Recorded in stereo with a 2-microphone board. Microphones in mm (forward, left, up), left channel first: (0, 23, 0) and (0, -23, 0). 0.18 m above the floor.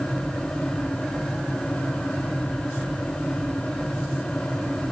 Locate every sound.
Only background noise.